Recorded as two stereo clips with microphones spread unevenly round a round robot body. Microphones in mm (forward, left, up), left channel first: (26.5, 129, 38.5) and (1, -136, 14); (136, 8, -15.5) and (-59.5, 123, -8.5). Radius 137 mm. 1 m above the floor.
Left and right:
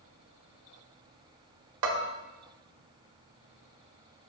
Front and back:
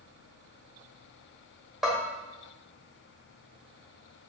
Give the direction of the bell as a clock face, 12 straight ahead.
4 o'clock.